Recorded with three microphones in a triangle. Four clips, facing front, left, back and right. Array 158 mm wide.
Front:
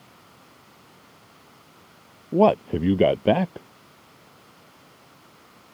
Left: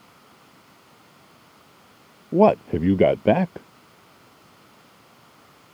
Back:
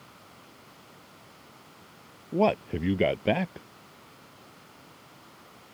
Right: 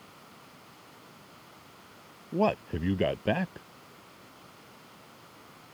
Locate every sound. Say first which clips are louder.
2.3 s a man speaking: left 11 dB, front 6 dB; 60° left